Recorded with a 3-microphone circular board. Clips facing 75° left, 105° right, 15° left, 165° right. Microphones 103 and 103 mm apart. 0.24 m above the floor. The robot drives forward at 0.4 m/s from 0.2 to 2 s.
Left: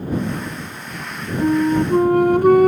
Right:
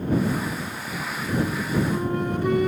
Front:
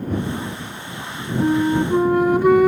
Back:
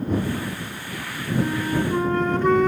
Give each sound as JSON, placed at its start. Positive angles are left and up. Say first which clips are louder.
{"t": 1.4, "sound": "a flute", "louder": "left 11 dB, front 7 dB", "azimuth_deg": 70, "distance_m": 0.5}